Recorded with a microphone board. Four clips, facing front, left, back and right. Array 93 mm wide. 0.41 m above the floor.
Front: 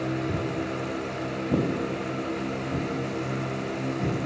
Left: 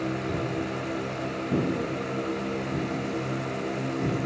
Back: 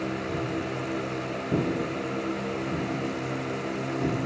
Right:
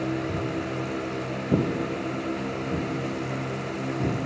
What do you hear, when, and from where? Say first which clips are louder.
0.3 s footsteps: even, front 1 dB; 5° right, 0.5 m; by 4.2 s 105° right, 2 m